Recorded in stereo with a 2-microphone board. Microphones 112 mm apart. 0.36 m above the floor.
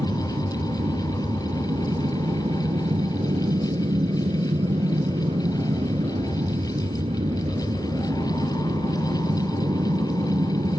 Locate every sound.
0.0 s an aircraft: 55° right (ahead or behind)